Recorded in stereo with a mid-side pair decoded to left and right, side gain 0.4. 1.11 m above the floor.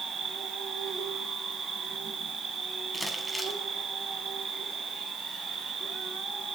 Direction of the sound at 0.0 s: 55° right.